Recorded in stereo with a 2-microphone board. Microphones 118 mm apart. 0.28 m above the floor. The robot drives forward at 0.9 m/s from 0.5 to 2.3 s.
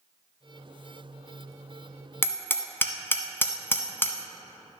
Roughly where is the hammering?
Left.